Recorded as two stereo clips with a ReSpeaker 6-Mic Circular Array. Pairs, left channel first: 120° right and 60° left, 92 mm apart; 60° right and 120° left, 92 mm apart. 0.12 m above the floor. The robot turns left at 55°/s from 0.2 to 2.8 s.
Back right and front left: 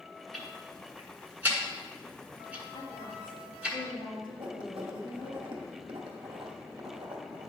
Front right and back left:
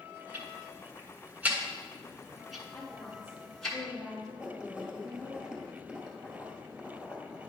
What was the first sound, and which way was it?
Ticking, 150° left.